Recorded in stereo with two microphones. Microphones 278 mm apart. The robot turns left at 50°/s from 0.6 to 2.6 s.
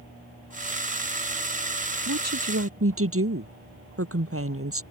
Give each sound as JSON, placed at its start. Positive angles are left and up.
{"t": 2.1, "sound": "a woman speaking", "side_deg": -75}